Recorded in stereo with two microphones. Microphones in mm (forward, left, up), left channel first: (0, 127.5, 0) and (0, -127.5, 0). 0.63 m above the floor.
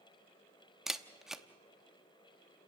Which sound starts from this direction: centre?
A camera shutter, at 0.9 s.